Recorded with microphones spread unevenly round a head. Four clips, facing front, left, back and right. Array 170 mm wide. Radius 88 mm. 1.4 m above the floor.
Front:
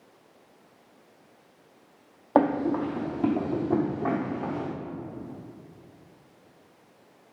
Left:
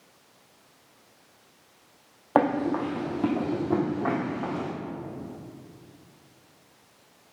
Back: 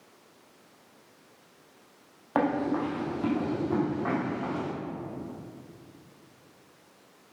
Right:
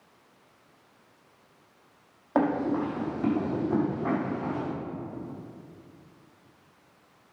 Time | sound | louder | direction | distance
2.4 | running footsteps | left 2 dB, front 4 dB | 30° left | 2 m